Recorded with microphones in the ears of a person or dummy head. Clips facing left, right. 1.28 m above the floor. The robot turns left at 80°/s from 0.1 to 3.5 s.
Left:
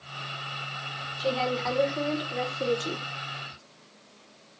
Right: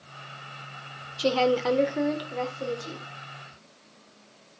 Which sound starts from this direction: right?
A woman speaking, at 1.2 s.